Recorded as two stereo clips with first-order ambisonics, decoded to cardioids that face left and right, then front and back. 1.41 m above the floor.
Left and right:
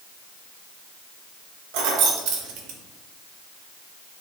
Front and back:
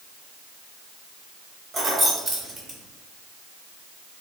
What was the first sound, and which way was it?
Keys jangling, 110° right.